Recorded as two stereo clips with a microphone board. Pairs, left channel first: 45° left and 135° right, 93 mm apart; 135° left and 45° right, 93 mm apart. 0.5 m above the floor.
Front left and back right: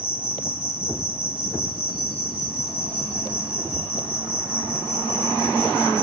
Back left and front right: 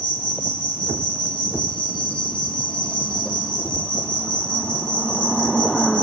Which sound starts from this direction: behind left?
An insect, at 0.0 s.